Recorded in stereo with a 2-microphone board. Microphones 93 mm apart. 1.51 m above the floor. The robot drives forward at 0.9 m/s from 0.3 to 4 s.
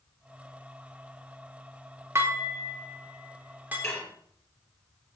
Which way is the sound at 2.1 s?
30° right (ahead or behind).